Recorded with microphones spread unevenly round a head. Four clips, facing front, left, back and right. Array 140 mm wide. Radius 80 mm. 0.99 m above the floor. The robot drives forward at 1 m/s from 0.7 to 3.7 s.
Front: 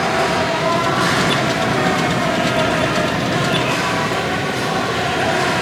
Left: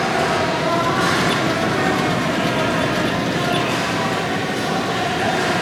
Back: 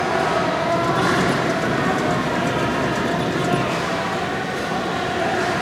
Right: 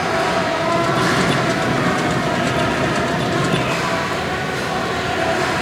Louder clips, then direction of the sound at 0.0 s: Even, front 2 dB; 10° right.